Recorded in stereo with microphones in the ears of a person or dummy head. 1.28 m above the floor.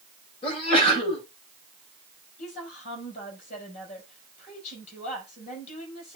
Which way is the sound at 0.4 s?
35° left (ahead or behind).